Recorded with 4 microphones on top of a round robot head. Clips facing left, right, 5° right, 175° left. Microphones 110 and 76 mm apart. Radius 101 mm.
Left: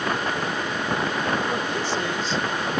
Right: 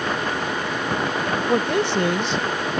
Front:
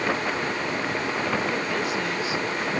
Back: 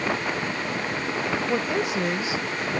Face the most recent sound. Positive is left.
turn(degrees=-115)